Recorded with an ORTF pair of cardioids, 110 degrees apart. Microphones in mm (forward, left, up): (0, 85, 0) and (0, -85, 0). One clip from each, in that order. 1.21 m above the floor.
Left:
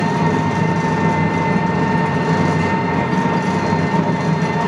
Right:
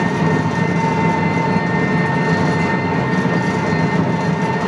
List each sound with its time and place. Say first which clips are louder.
0.0 s an engine running: even; straight ahead, 1.5 m